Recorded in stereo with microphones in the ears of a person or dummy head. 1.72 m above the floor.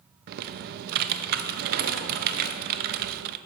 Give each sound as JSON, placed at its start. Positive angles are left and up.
{"t": 0.3, "sound": "typing on a keyboard", "side_deg": -55, "distance_m": 0.5}